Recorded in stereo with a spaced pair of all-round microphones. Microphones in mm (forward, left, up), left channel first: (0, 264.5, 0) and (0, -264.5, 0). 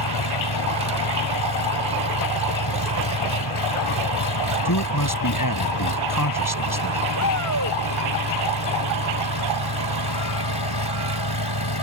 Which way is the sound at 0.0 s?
50° left (ahead or behind).